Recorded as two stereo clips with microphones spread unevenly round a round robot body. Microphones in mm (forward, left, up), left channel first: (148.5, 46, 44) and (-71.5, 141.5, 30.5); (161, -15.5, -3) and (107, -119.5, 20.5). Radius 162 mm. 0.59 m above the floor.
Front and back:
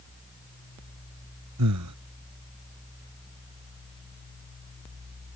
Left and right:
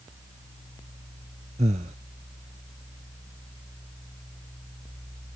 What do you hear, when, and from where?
1.6 s breathing: 165° right